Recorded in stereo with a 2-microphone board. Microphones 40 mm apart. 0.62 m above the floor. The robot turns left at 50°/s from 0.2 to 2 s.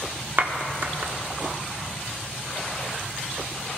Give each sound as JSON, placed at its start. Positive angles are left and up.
{"t": 0.4, "sound": "a clap", "side_deg": -55, "distance_m": 1.1}